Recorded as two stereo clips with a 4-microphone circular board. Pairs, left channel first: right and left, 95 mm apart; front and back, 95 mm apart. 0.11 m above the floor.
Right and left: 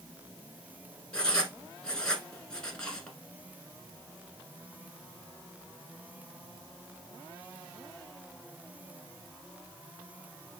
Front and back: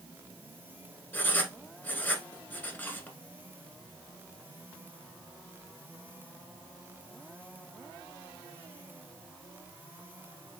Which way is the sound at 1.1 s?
30° right.